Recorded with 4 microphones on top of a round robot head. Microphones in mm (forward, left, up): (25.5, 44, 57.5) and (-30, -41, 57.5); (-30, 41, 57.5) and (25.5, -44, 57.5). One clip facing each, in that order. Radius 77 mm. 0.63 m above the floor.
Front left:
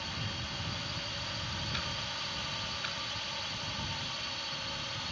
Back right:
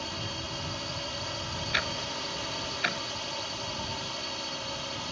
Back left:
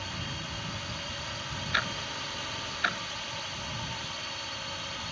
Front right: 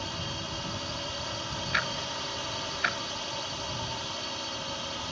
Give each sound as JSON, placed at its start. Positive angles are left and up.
{"t": 0.0, "sound": "a drone", "azimuth_deg": -105}
{"t": 1.7, "sound": "ticking", "azimuth_deg": -150}